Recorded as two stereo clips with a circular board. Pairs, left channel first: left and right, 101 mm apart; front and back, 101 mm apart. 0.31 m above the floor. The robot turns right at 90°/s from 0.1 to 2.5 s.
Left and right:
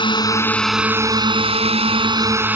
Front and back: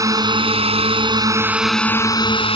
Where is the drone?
125° left; by 2.6 s 20° right.